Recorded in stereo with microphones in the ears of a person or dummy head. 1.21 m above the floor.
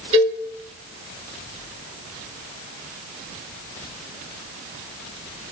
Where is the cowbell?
35° right (ahead or behind), 2.5 m.